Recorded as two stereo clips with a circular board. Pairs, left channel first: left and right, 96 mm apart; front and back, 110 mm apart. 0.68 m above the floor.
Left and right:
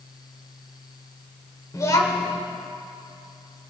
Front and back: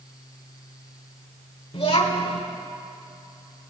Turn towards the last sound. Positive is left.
turn(degrees=30)